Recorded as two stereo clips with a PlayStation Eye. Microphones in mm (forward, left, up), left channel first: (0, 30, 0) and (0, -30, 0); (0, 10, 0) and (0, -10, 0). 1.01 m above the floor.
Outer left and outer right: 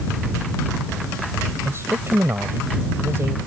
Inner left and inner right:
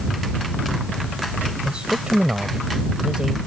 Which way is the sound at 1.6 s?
45° right (ahead or behind).